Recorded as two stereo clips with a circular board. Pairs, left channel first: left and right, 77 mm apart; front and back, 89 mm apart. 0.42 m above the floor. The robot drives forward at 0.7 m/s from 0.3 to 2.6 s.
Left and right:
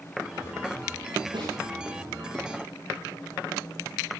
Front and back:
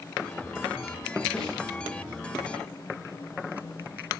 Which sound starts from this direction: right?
A snare drum, at 1.3 s.